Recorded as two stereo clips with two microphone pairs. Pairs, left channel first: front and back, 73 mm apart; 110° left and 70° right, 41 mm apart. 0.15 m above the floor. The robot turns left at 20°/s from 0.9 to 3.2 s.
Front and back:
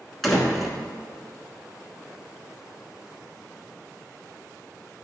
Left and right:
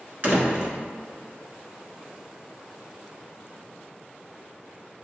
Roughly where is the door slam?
Right.